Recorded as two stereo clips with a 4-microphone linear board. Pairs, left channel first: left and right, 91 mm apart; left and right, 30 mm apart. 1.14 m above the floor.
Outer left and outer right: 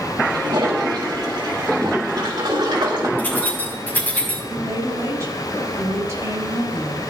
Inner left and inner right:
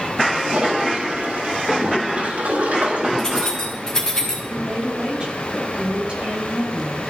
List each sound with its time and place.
0.3 s a toilet flushing: 50° right (ahead or behind), 3.5 m
3.2 s keys jangling: 20° left (ahead or behind), 5 m
4.5 s a woman speaking: 30° right (ahead or behind), 5 m